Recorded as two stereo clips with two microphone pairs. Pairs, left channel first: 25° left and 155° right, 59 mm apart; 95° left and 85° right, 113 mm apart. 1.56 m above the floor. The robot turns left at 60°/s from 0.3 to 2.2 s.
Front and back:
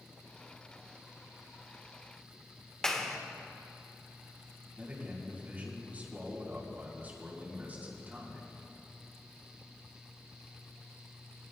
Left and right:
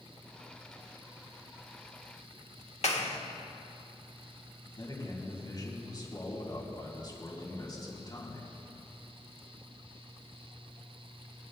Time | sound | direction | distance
2.8 | a clap | 105° left | 1.4 m
4.8 | a man speaking | 150° left | 4 m